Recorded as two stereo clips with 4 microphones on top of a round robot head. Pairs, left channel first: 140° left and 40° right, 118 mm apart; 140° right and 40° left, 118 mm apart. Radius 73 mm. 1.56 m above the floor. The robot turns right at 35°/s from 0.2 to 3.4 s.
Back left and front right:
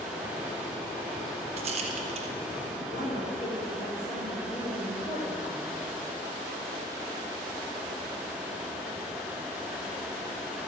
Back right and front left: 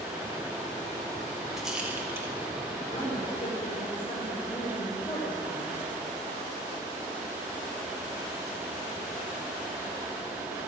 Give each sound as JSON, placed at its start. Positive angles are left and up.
{"t": 1.6, "sound": "a rattle", "azimuth_deg": -45, "distance_m": 0.9}
{"t": 2.9, "sound": "a woman speaking", "azimuth_deg": 160, "distance_m": 5.5}